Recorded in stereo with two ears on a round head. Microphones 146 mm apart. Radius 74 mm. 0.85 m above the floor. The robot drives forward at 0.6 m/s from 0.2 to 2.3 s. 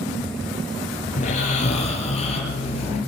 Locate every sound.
1.2 s snoring: 50° left (ahead or behind), 3 m; by 3.0 s 40° left (ahead or behind), 3.5 m